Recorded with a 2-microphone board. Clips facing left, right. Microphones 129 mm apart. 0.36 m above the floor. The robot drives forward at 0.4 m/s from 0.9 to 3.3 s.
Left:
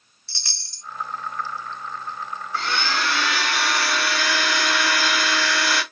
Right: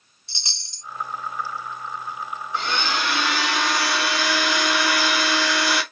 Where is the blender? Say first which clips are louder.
Even; 20° right (ahead or behind), 1.3 m; by 5.8 s 15° right (ahead or behind), 1.6 m.